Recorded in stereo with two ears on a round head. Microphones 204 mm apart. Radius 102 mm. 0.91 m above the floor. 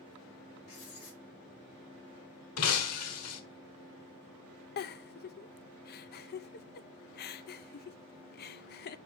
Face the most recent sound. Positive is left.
turn(degrees=45)  # may be behind; listen again after turning